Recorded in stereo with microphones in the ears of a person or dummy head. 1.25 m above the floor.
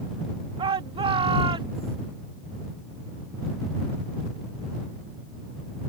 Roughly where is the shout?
Right.